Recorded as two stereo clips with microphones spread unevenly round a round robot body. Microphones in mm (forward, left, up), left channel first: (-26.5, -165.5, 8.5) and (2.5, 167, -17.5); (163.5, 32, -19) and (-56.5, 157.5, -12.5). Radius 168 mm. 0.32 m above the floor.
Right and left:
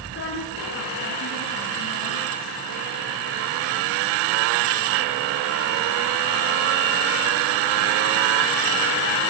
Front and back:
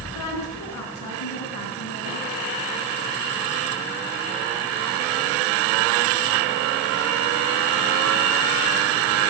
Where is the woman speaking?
35° right, 4 m; by 2.6 s 60° right, 3.5 m.